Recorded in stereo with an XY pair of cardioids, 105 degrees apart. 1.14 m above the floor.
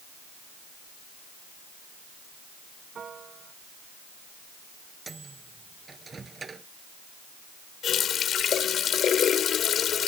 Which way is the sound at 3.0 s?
40° right.